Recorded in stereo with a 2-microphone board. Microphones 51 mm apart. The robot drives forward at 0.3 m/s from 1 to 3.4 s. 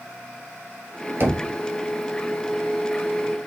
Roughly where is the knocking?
Right.